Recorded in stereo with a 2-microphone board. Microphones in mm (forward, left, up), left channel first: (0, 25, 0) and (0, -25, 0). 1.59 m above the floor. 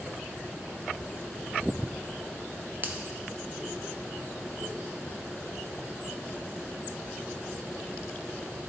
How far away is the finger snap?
About 0.8 m.